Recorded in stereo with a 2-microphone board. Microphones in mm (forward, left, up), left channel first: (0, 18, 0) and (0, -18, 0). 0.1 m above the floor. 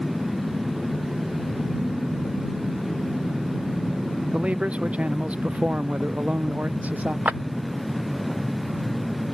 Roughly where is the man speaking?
Right.